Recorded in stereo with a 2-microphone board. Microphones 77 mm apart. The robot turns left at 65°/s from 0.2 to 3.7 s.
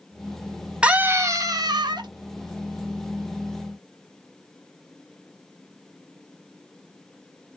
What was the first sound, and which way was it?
A scream, 15° right.